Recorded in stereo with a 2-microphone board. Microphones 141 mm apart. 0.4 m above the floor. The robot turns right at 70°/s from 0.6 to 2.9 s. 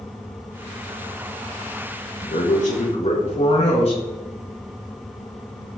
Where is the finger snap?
No finger snap in this recording.